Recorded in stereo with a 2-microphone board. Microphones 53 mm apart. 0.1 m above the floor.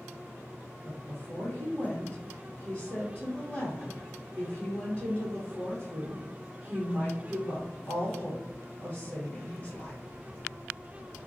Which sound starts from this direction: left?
A woman speaking, at 0.8 s.